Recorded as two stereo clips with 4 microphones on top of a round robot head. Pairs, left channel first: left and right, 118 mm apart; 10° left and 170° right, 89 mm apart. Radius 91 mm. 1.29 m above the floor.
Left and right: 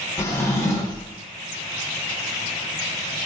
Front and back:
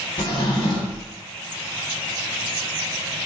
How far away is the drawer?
About 0.6 m.